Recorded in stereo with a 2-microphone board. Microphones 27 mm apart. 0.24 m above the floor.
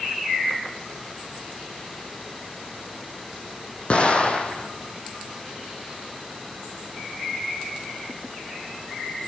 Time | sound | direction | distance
3.9 | an explosion | 40° left (ahead or behind) | 2.0 m